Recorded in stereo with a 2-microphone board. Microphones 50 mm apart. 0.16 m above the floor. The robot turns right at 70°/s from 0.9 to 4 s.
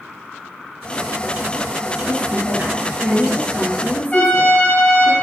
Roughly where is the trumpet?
Left.